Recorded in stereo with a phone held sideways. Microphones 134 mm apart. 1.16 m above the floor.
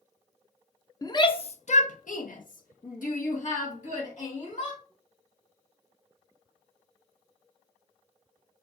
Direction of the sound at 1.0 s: 25° left (ahead or behind).